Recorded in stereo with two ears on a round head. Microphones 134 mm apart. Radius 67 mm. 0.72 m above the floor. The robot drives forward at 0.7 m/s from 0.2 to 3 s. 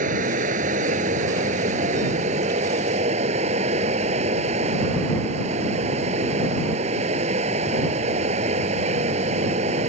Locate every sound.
0.0 s running water: 55° right (ahead or behind); by 9.9 s 50° right (ahead or behind)